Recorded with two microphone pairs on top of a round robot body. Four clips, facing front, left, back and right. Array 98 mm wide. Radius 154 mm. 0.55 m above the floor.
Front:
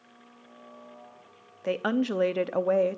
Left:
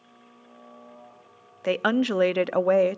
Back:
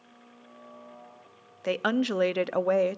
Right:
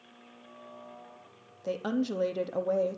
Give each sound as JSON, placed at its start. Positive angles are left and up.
{"t": 1.6, "sound": "a woman speaking", "azimuth_deg": 105, "distance_m": 1.0}